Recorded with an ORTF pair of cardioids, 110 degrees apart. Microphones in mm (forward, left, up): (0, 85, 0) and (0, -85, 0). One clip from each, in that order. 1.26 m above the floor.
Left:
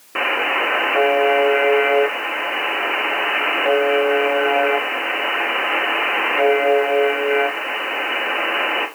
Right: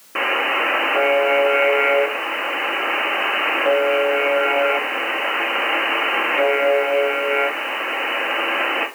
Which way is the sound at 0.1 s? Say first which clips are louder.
Even; 5° left.